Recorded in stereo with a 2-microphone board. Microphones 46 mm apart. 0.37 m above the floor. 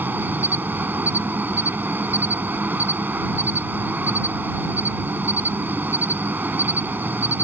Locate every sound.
0.0 s an insect: 45° right (ahead or behind)